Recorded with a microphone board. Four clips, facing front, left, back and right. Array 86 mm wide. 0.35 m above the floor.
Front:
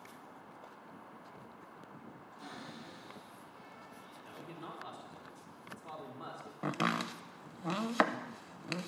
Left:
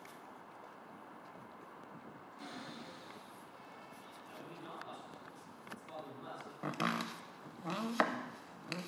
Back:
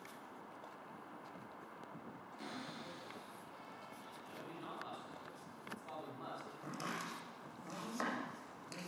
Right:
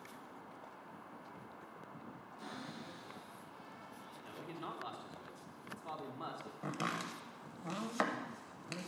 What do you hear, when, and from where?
2.4 s a cupboard door: 150° left, 5.5 m
4.2 s a man speaking: 75° right, 2.5 m
6.6 s chopping: 15° left, 0.6 m